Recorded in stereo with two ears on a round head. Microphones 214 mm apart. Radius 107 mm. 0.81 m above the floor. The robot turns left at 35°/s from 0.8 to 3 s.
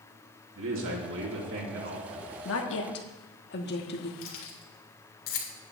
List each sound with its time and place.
0.6 s a man speaking: 70° right, 2 m; by 2.4 s 125° right, 2 m
2.5 s a woman speaking: 60° left (ahead or behind), 1.3 m; by 4.1 s 45° left (ahead or behind), 1.3 m
4.2 s keys jangling: 60° left (ahead or behind), 2 m